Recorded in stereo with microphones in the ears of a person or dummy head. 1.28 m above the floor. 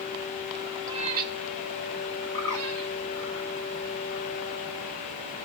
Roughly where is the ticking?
No ticking in this recording.